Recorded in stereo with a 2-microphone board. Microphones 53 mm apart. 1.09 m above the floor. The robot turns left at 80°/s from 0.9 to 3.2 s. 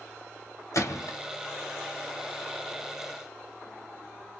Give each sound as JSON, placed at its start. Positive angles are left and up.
{"t": 0.7, "sound": "a gunshot", "side_deg": 80, "distance_m": 2.5}